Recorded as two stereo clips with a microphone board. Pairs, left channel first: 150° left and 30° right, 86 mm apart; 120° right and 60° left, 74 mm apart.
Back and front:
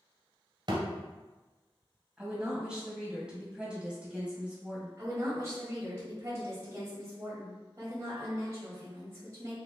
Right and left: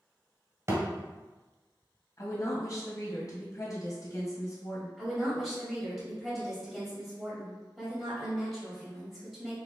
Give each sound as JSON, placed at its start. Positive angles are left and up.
{"t": 0.7, "sound": "a thud", "azimuth_deg": 5, "distance_m": 1.2}
{"t": 2.2, "sound": "a woman speaking", "azimuth_deg": -105, "distance_m": 1.6}
{"t": 5.0, "sound": "a woman speaking", "azimuth_deg": -35, "distance_m": 1.5}